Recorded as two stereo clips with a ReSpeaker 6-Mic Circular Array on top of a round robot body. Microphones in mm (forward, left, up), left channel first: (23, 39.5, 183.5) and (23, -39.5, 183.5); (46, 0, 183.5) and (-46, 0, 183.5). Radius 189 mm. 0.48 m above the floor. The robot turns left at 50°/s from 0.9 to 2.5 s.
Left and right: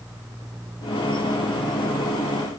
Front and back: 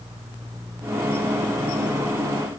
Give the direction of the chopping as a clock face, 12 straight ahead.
I don't hear chopping.